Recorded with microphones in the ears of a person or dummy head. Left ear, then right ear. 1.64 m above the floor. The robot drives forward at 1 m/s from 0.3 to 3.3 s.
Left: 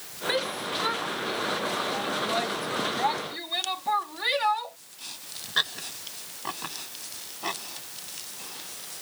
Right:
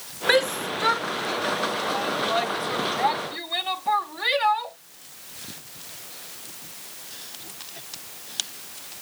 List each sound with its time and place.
0.3 s a shout: 45° right (ahead or behind); by 4.8 s 10° right (ahead or behind)